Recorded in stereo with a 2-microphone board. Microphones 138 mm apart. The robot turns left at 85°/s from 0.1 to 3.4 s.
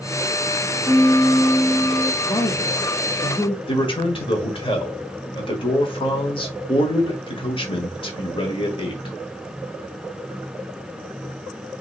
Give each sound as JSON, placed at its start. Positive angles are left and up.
{"t": 0.8, "sound": "a piano", "azimuth_deg": -90, "distance_m": 2.5}
{"t": 2.2, "sound": "a woman speaking", "azimuth_deg": 140, "distance_m": 1.0}
{"t": 3.7, "sound": "a man speaking", "side_deg": 40, "distance_m": 1.5}